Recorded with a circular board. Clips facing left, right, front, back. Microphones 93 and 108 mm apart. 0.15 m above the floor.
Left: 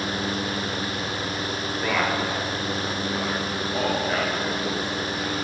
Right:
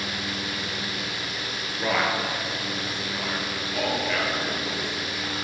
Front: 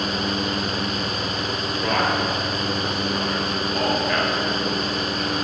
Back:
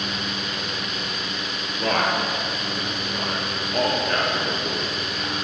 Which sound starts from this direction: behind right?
A man speaking, at 1.8 s.